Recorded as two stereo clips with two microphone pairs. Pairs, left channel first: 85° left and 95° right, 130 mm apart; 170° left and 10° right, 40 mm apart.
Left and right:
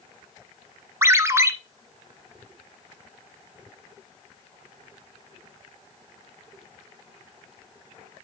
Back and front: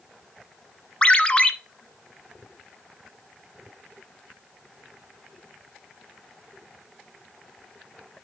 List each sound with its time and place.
1.0 s a ringtone: 145° right, 0.8 m